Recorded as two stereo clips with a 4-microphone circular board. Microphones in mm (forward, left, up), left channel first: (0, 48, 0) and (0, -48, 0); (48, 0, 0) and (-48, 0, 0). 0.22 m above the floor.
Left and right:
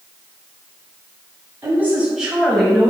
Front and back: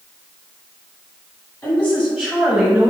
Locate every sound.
1.6 s a woman speaking: 45° right, 1.8 m; by 2.9 s 140° left, 1.6 m